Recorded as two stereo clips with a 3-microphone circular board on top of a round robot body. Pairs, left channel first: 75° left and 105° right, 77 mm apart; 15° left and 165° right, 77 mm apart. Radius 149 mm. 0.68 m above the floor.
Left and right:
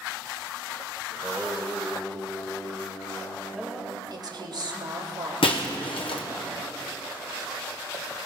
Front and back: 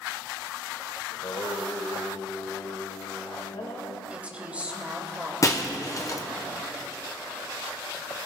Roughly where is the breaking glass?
Ahead left.